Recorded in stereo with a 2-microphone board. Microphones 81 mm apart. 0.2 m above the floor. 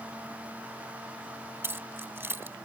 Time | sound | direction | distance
1.6 | keys jangling | 25° right (ahead or behind) | ?